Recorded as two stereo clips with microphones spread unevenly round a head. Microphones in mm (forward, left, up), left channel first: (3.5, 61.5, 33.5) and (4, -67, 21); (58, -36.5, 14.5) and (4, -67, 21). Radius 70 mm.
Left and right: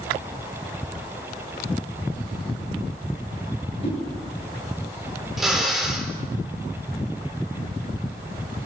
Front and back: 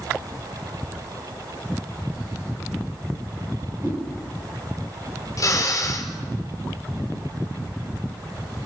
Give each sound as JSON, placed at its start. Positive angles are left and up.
{"t": 3.8, "sound": "a whoosh", "azimuth_deg": 135, "distance_m": 8.0}
{"t": 5.4, "sound": "a drill", "azimuth_deg": 0, "distance_m": 4.0}